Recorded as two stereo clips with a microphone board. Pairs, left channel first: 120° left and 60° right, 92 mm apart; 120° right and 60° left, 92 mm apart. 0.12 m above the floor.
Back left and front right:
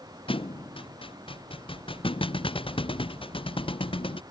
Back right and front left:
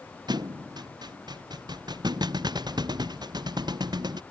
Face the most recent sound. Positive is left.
turn(degrees=100)